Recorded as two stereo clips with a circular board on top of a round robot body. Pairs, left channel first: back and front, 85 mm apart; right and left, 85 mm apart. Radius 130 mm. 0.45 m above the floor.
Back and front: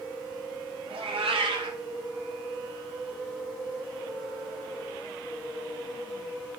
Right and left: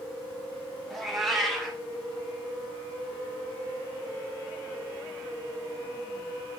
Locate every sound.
0.9 s a cat meowing: straight ahead, 2.0 m